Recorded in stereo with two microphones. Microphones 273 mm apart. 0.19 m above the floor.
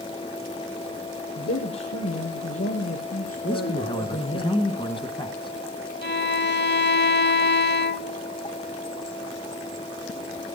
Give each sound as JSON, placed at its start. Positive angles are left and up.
{"t": 1.4, "sound": "a man speaking", "side_deg": 70, "distance_m": 4.0}
{"t": 3.4, "sound": "a man speaking", "side_deg": 20, "distance_m": 1.8}
{"t": 6.0, "sound": "a violin", "side_deg": 40, "distance_m": 0.7}